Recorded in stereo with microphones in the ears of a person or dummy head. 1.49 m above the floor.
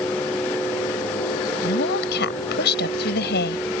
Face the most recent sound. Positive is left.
turn(degrees=65)  # may be behind; listen again after turning